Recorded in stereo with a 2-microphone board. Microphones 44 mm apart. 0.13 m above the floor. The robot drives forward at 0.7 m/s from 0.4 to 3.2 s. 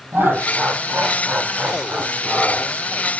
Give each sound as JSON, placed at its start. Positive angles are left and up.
{"t": 0.1, "sound": "laughter", "side_deg": -60, "distance_m": 4.0}